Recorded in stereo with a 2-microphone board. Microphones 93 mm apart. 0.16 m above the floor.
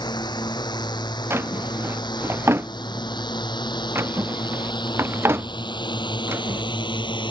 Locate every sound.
0.0 s a drone: 50° left (ahead or behind); by 7.3 s 55° left (ahead or behind)
1.3 s a drawer: 25° right (ahead or behind)